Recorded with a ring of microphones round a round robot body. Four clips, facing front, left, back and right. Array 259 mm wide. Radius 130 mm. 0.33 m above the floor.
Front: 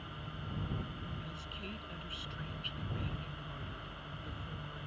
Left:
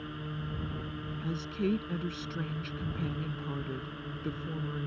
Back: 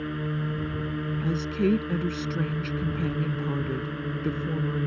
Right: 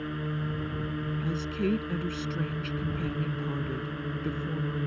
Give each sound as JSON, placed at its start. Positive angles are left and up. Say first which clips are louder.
{"t": 0.0, "sound": "a drone", "louder": "right 7 dB, back 17 dB", "azimuth_deg": -160}
{"t": 1.2, "sound": "a woman speaking", "louder": "right 1 dB, back 21 dB", "azimuth_deg": -175}